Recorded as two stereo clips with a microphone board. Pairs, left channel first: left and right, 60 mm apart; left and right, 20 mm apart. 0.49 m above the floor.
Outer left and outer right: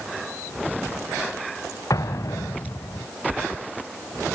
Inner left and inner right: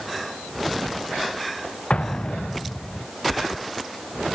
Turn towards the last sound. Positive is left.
turn(degrees=70)  # may be behind; listen again after turning